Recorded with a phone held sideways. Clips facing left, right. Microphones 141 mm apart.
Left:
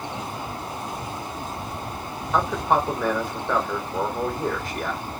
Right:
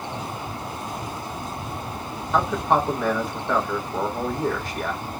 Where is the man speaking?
Centre (ahead or behind), 1.2 m.